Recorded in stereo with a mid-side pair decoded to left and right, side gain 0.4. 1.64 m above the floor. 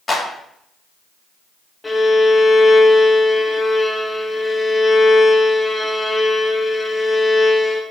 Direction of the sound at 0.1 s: 30° left.